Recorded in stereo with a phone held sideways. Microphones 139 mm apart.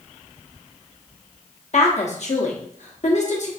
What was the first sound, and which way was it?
A woman speaking, 55° left (ahead or behind).